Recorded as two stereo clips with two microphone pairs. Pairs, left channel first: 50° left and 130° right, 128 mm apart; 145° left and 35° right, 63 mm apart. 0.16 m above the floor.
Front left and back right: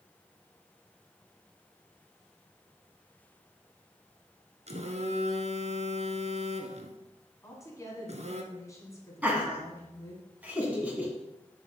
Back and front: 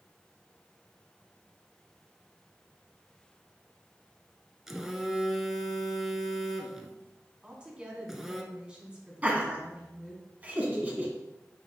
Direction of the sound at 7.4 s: 25° left.